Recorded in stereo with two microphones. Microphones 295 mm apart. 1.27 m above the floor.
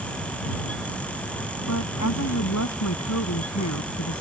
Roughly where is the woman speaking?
Left.